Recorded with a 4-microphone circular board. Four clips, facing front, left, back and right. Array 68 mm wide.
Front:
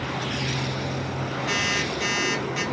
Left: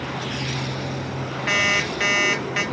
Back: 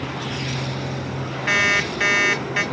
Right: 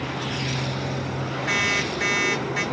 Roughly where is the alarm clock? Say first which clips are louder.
Left 3 dB, back 8 dB; behind left.